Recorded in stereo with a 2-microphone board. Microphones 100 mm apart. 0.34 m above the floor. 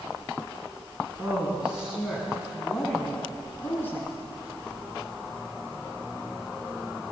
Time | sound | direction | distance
1.2 | a woman speaking | 15° right (ahead or behind) | 4 m